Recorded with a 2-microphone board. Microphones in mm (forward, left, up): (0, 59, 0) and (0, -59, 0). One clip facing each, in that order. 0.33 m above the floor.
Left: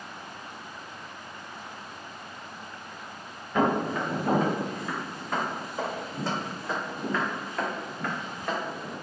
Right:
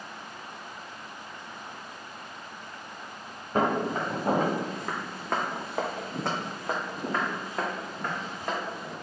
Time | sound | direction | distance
3.5 | footsteps | 40° right (ahead or behind) | 1.7 m